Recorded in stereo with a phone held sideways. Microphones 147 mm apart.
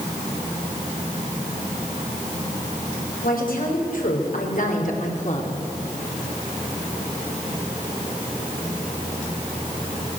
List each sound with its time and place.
3.2 s a woman speaking: 75° left (ahead or behind), 6 m; by 5.5 s 55° left (ahead or behind), 4 m